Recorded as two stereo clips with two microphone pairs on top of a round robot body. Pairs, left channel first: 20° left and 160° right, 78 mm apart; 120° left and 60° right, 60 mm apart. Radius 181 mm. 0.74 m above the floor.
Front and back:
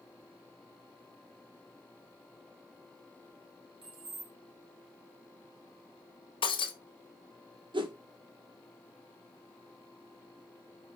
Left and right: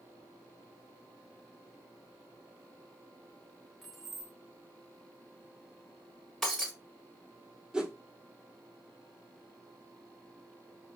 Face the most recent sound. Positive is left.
turn(degrees=-140)